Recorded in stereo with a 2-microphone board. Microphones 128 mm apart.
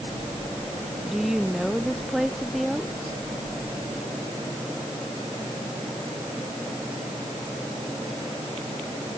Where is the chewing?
No chewing in this recording.